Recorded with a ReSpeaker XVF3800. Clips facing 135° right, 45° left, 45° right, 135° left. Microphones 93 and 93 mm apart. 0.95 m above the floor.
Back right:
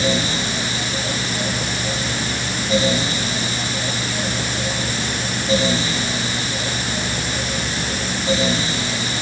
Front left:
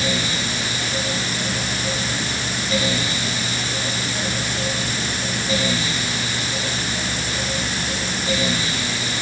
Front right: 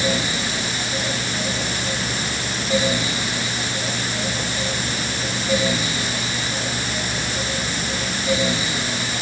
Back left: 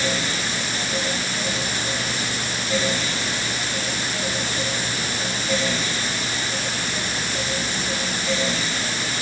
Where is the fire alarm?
I don't hear a fire alarm.